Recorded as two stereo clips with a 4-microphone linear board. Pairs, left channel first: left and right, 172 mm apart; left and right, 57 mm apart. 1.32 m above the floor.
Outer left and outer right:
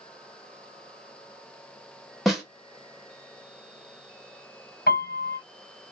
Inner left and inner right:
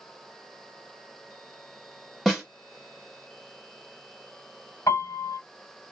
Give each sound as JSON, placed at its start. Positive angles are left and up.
{"t": 2.2, "sound": "a snare drum", "side_deg": 0, "distance_m": 1.0}
{"t": 4.9, "sound": "a piano", "side_deg": 70, "distance_m": 1.1}